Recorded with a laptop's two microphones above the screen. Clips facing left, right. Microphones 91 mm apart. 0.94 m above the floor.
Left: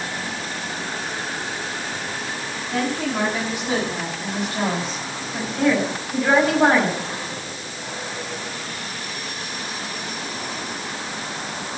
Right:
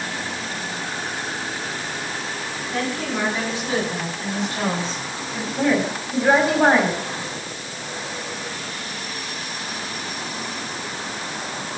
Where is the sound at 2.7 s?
10° left (ahead or behind), 10 m; by 5.5 s 15° left (ahead or behind), 7 m.